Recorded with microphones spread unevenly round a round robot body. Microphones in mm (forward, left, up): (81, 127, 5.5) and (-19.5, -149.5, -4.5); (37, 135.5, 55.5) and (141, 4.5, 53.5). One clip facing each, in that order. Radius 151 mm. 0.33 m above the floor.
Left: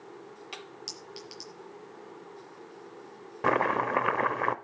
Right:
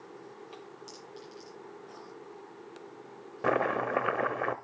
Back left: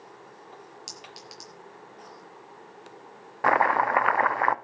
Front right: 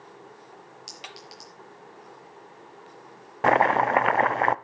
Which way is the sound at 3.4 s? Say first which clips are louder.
Left 1 dB, front right 3 dB; 10° right.